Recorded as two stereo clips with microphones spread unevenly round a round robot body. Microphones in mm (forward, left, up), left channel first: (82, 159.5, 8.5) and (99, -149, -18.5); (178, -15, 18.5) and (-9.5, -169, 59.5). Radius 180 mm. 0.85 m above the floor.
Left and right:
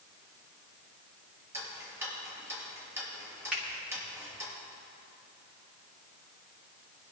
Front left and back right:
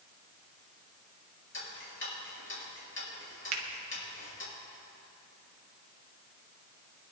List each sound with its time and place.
1.5 s ticking: 5° right, 5 m
3.5 s a finger snap: 175° right, 1.1 m